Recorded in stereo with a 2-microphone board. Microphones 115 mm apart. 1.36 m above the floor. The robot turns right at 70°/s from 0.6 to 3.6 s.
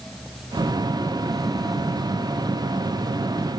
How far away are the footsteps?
No footsteps in this recording.